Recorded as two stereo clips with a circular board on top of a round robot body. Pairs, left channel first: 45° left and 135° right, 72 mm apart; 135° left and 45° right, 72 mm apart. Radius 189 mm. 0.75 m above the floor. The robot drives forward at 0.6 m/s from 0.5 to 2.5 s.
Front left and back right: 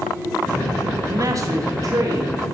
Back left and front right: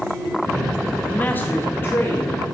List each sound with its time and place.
1.1 s a man speaking: 160° right, 0.7 m; by 2.5 s 175° right, 1.4 m